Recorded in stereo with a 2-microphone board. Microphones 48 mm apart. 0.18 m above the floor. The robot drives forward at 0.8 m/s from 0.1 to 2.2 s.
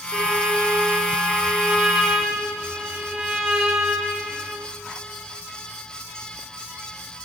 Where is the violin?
20° right (ahead or behind), 3 m; by 4.7 s 15° right (ahead or behind), 4.5 m.